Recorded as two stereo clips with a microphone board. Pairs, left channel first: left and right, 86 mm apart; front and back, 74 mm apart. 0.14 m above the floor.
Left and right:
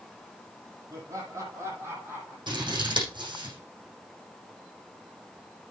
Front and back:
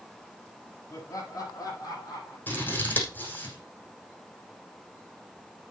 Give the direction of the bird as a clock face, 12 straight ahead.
No bird in this recording.